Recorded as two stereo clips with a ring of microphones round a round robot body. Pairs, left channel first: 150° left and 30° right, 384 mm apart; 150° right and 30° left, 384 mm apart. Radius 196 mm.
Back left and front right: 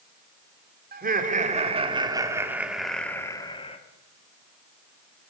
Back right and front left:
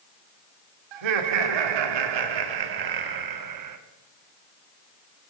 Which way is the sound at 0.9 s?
35° left.